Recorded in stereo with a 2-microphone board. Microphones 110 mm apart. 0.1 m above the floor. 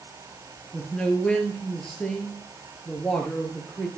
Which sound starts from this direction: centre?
A man speaking, at 0.7 s.